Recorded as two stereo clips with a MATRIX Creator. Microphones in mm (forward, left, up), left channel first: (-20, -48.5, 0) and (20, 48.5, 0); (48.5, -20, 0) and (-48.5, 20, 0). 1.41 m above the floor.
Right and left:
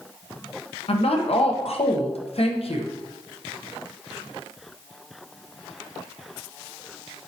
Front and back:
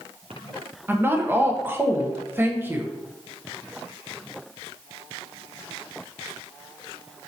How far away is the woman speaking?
About 1.0 m.